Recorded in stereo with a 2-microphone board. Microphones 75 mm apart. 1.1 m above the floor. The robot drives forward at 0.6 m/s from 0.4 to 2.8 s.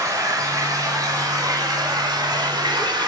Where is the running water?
50° right (ahead or behind), 3.5 m; by 3.1 s 75° right (ahead or behind), 2.5 m.